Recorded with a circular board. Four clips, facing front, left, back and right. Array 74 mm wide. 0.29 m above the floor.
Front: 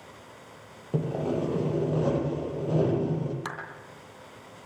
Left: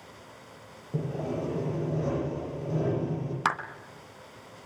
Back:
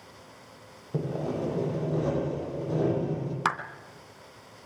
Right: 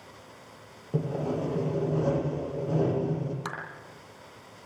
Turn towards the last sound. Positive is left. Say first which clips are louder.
# left 9 dB, back 9 dB
turn(degrees=130)